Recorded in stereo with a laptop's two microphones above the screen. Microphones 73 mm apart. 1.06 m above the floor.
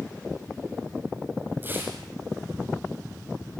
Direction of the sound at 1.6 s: 30° right (ahead or behind).